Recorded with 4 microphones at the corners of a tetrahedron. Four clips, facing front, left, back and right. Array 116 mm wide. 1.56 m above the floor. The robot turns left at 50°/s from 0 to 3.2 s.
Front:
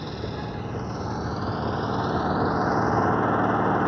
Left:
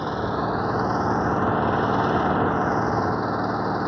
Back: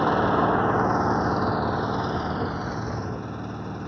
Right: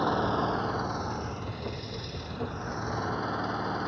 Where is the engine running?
170° right; by 3.9 s 30° left.